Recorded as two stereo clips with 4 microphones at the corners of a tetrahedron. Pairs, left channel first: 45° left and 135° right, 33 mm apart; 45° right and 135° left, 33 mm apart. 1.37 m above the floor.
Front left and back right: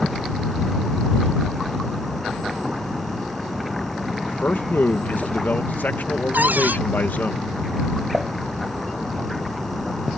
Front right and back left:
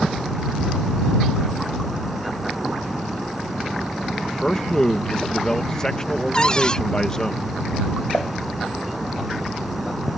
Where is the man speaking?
25° left.